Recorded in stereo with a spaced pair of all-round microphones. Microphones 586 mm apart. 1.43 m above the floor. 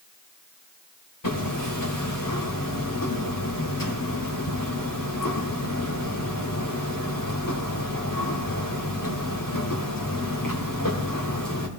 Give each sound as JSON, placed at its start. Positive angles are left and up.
{"t": 1.2, "sound": "hammering", "side_deg": 35, "distance_m": 2.5}